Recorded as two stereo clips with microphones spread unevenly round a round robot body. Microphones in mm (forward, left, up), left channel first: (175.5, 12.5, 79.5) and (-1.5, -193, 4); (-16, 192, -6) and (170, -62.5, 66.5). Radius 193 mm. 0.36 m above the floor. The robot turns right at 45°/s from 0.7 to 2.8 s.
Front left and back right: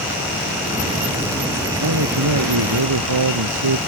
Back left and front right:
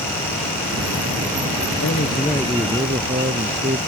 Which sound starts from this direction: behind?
A man speaking, at 1.8 s.